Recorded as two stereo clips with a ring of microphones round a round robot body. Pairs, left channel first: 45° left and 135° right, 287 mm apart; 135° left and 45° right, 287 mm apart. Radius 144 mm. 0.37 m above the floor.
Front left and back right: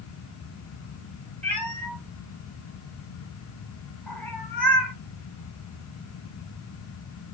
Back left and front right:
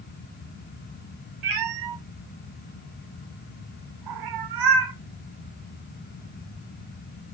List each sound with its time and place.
1.4 s a cat meowing: 40° right, 1.3 m